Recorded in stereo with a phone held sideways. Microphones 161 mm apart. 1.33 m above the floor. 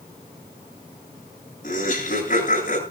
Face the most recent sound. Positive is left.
turn(degrees=60)  # may be behind; listen again after turning